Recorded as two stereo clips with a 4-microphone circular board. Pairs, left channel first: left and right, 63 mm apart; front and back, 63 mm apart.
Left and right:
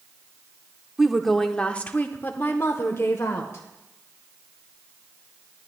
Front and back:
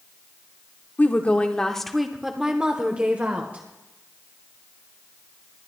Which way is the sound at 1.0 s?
10° right.